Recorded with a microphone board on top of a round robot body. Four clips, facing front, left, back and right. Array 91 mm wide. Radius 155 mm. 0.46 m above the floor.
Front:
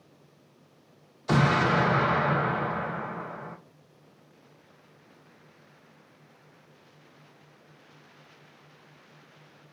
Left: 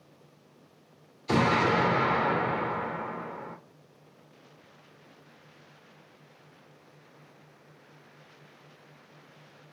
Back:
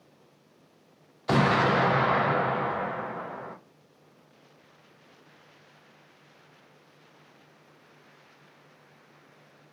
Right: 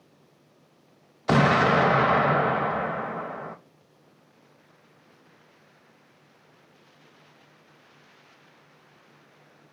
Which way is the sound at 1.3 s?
105° right.